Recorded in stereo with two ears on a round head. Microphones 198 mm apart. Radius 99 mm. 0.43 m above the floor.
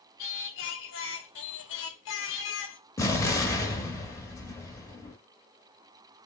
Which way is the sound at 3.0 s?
15° left (ahead or behind).